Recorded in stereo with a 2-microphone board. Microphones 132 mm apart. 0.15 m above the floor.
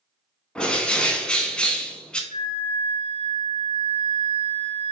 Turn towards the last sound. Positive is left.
turn(degrees=-40)  # may be behind; listen again after turning